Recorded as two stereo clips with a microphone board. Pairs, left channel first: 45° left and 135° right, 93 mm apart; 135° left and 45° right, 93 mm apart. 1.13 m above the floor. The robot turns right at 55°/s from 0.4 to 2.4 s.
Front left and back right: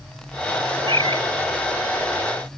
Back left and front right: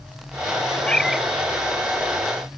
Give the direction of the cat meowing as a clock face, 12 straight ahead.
5 o'clock.